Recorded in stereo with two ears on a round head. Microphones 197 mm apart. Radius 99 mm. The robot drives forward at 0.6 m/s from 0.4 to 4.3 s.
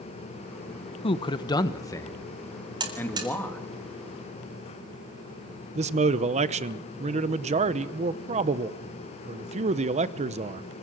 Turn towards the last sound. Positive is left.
turn(degrees=-30)  # may be behind; listen again after turning